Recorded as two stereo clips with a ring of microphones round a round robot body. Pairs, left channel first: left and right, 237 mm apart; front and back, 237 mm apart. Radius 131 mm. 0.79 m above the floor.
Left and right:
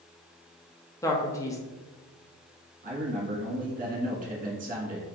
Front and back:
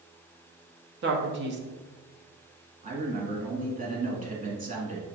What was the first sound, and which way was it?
A man speaking, 165° left.